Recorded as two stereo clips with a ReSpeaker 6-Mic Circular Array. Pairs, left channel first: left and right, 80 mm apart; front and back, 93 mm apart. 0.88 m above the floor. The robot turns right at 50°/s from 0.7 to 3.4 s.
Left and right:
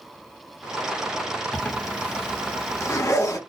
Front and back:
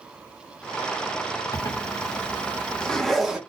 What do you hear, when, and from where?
1.5 s a zipper: 10° left, 0.9 m; by 3.4 s 100° left, 0.9 m